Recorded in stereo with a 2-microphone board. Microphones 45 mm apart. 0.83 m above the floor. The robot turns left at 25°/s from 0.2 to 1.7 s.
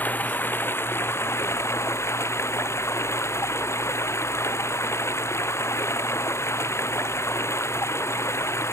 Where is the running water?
140° left; by 8.7 s 100° left.